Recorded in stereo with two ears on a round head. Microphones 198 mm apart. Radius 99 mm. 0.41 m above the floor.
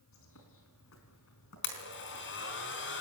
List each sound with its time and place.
0.1 s a bird: 65° left (ahead or behind), 5 m
1.6 s a blender: 55° left (ahead or behind), 4 m